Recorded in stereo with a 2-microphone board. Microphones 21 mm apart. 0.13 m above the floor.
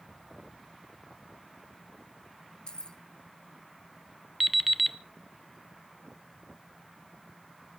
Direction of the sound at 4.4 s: Centre (ahead or behind).